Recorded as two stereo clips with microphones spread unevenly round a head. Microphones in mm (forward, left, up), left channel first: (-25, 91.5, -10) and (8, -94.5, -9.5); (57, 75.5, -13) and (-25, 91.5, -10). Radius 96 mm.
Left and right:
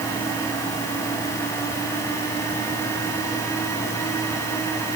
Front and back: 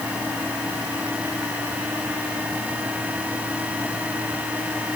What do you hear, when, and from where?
Only background noise.